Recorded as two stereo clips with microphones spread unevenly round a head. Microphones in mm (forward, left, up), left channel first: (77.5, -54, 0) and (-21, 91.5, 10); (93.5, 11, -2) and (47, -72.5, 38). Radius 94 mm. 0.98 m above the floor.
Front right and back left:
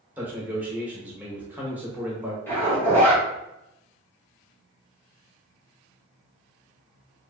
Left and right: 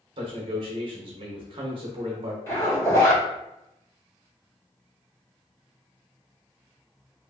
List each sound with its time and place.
0.2 s a man speaking: 155° right, 0.7 m
2.5 s a zipper: 20° left, 1.4 m